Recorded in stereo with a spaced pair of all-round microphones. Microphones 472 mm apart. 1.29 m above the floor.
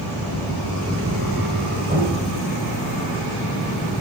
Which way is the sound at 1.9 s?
15° right (ahead or behind).